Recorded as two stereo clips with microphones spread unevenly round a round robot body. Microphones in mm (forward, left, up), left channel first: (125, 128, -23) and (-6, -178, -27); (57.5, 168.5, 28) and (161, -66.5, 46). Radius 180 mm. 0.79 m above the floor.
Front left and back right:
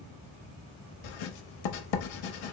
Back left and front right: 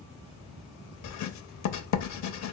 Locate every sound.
1.0 s writing: 100° left, 0.6 m